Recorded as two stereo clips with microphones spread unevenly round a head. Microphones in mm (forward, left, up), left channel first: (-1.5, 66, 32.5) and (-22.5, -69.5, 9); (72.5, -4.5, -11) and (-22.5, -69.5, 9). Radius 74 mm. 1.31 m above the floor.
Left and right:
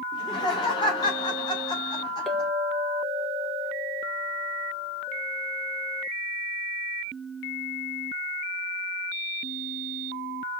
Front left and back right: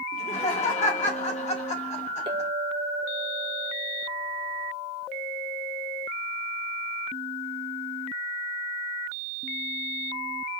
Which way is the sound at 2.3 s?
165° left.